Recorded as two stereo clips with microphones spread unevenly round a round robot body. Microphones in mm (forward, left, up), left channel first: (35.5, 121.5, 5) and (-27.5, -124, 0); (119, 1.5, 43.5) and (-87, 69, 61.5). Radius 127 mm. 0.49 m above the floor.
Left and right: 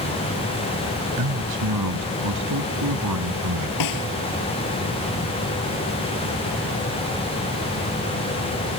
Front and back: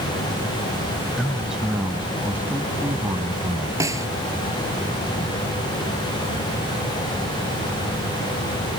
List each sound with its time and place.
1.2 s a man speaking: 110° right; by 3.7 s 120° right
3.8 s a snare drum: 85° left